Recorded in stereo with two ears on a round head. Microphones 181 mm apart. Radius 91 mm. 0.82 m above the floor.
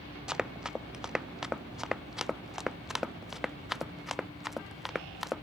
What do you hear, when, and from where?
0.3 s running footsteps: 5° right (ahead or behind); by 5.4 s centre (ahead or behind)